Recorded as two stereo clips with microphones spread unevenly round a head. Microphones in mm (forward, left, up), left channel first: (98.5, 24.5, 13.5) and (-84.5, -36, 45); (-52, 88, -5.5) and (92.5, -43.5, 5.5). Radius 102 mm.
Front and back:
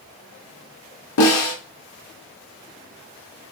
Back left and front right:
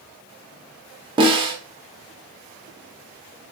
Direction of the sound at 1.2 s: 20° left.